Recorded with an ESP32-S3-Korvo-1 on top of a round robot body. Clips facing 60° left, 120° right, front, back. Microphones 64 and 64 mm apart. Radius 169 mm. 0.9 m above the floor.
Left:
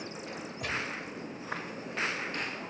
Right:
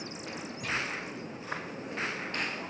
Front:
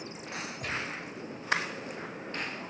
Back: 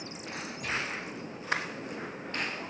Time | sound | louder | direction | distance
0.6 | a gunshot | right 1 dB, back 3 dB | 50° left | 1.6 m